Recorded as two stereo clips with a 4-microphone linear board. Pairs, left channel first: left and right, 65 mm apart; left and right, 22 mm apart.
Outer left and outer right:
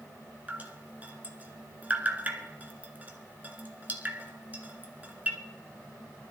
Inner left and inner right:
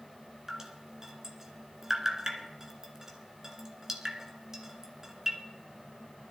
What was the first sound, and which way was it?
Dripping, 25° right (ahead or behind).